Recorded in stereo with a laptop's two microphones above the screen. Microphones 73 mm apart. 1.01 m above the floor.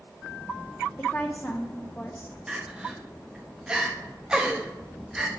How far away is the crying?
About 0.7 m.